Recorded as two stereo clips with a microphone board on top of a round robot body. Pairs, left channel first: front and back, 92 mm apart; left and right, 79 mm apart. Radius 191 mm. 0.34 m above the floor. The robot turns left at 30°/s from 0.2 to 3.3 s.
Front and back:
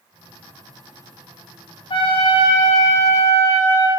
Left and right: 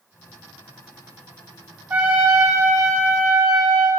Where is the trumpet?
20° right, 1.7 m; by 3.9 s 60° right, 1.7 m.